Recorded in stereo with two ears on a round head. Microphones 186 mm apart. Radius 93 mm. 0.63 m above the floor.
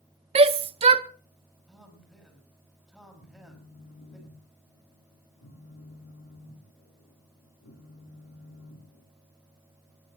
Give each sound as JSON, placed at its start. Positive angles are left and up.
{"t": 0.3, "sound": "a shout", "side_deg": -30, "distance_m": 0.7}
{"t": 1.7, "sound": "a man speaking", "side_deg": -5, "distance_m": 6.0}
{"t": 3.2, "sound": "a phone buzzing", "side_deg": 65, "distance_m": 2.0}